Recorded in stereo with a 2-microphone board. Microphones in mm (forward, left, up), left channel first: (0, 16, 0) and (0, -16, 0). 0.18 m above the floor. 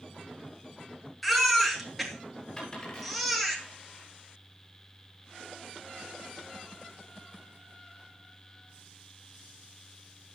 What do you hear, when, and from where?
1.2 s a baby crying: 5° left (ahead or behind), 2.5 m
2.6 s a dropped coin: 30° left (ahead or behind), 9 m